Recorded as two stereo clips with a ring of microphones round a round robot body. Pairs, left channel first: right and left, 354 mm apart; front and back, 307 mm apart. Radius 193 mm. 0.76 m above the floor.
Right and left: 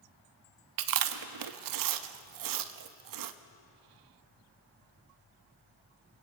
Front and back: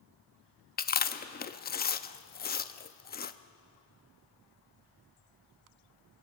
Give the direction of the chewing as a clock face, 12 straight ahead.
10 o'clock.